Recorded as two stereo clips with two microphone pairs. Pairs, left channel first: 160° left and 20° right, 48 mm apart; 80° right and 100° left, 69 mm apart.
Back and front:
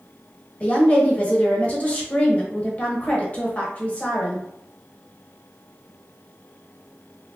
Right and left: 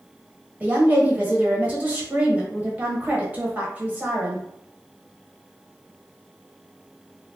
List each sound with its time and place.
0.6 s a woman speaking: 135° left, 0.9 m